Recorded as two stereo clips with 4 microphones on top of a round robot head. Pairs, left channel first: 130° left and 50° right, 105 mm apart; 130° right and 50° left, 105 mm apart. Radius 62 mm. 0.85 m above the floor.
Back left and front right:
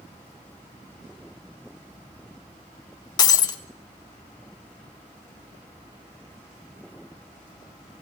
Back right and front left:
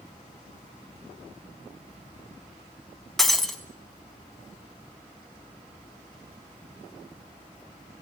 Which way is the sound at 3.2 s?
145° left.